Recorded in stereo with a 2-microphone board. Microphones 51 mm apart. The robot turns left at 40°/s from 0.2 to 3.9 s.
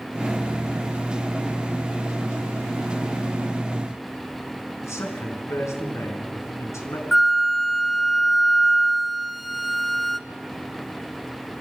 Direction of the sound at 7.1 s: Centre (ahead or behind).